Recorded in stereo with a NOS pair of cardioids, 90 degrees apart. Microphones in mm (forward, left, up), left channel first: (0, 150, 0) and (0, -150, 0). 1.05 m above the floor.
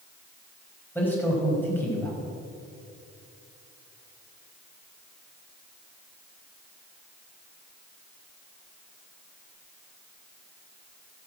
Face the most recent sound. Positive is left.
turn(degrees=5)